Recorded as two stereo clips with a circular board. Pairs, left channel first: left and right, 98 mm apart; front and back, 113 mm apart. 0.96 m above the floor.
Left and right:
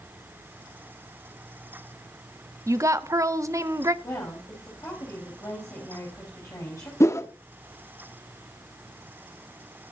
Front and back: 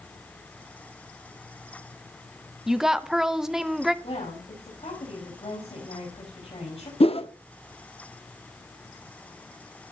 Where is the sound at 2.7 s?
95° right, 0.8 m.